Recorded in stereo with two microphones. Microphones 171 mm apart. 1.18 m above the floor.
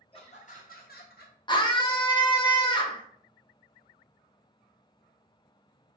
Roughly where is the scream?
Left.